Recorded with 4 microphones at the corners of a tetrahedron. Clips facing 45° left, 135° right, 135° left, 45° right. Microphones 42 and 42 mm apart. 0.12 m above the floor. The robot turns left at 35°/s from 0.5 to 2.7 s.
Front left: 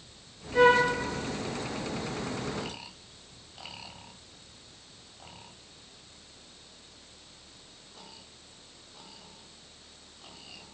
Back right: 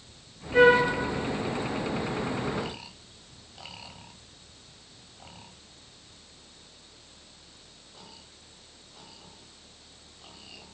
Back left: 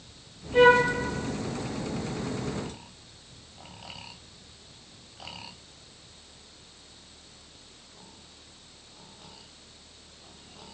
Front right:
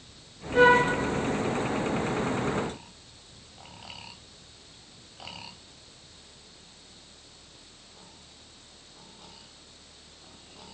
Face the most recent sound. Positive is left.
turn(degrees=115)